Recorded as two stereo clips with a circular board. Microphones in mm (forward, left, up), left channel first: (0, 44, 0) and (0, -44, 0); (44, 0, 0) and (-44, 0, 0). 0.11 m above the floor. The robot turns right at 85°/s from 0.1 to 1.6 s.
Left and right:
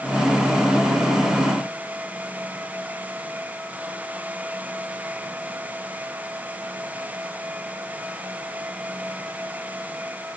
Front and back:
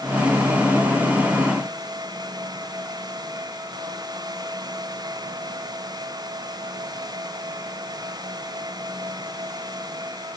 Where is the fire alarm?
No fire alarm in this recording.